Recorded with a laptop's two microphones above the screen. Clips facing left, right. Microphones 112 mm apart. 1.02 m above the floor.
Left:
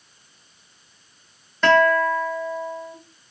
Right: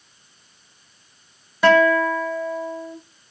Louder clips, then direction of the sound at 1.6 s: Right 2 dB; 10° right (ahead or behind).